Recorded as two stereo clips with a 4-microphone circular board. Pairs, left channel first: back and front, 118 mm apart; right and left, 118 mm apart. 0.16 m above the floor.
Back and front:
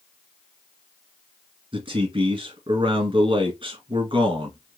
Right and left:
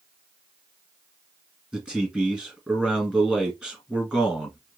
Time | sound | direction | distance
1.7 | a man speaking | 10° left | 1.8 m